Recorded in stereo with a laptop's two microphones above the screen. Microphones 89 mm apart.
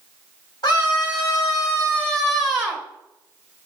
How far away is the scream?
About 1.3 m.